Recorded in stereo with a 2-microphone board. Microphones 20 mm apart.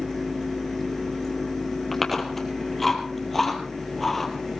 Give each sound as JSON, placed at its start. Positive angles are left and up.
{"t": 1.9, "sound": "chewing", "side_deg": 5, "distance_m": 2.5}